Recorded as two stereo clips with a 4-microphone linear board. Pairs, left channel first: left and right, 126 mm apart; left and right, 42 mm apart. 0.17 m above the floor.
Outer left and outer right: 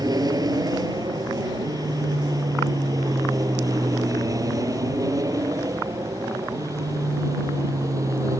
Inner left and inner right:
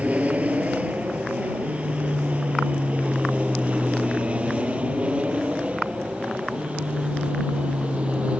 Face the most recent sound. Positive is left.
turn(degrees=-25)  # may be behind; listen again after turning